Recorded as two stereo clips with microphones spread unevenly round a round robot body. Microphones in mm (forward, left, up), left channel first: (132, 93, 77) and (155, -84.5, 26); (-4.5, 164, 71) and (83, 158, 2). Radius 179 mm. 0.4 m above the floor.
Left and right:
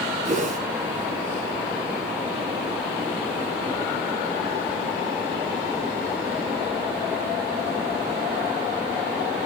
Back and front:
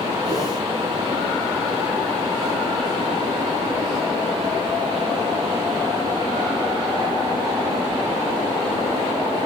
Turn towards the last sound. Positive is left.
turn(degrees=-40)